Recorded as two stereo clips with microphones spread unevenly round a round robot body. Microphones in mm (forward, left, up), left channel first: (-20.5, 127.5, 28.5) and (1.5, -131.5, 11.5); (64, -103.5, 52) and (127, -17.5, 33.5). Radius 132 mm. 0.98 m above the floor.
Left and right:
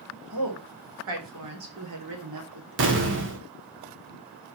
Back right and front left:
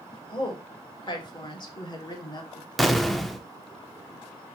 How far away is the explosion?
About 1.5 m.